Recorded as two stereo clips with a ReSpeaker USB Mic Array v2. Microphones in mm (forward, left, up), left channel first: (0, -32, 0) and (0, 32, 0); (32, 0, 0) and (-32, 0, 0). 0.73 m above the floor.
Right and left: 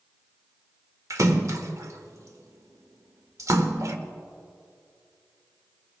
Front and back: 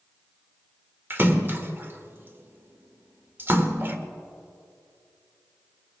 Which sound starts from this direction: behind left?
A splash, at 1.1 s.